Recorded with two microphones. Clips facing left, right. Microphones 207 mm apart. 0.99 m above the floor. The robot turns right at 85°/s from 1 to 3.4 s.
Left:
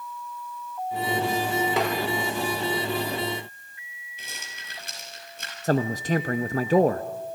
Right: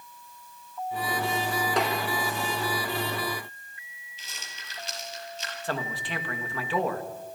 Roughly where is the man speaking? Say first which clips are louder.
Left 10 dB; left.